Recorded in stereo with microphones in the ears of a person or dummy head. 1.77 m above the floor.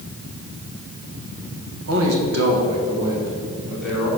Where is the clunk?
I don't hear a clunk.